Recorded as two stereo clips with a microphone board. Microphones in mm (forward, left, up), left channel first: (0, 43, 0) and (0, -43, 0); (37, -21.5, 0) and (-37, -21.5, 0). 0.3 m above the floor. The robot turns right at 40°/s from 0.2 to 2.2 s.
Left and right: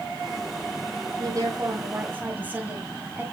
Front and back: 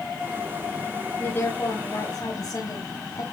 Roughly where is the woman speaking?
Ahead right.